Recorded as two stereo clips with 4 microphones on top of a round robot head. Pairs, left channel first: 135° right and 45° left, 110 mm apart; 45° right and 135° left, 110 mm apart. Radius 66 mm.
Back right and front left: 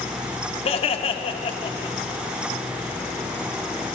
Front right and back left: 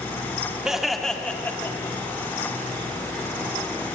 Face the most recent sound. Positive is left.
turn(degrees=-100)